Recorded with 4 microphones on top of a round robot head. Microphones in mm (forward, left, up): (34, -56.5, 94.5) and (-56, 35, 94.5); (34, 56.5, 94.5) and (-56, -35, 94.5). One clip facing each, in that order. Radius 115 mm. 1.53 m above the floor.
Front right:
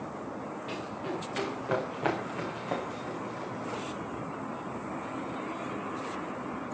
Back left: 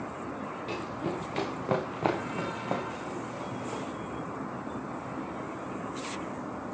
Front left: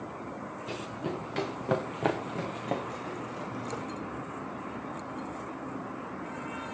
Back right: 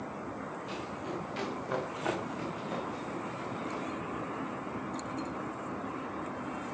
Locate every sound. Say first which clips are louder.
0.7 s running footsteps: back left 3 dB, front left 5 dB; 80° left, 7.5 m; by 3.8 s 55° left, 5 m